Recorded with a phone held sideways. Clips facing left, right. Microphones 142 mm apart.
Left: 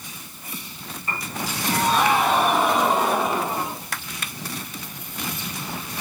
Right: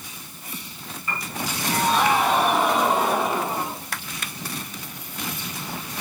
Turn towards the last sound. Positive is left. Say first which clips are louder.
# even
turn(degrees=35)  # may be behind; listen again after turning